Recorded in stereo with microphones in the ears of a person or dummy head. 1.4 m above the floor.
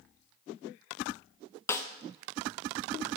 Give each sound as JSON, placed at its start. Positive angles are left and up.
{"t": 1.7, "sound": "a snare drum", "side_deg": 10, "distance_m": 0.8}